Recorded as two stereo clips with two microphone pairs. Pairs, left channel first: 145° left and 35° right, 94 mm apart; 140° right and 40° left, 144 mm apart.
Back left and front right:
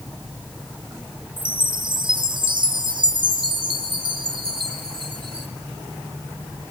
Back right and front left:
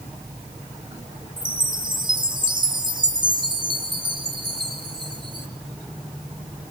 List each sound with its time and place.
1.4 s a chime: 15° right, 2 m